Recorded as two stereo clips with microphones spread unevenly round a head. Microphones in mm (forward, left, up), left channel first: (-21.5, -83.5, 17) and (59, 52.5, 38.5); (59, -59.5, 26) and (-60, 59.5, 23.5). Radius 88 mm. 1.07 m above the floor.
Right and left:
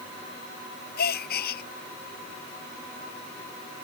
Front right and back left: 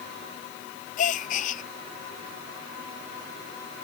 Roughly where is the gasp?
Right.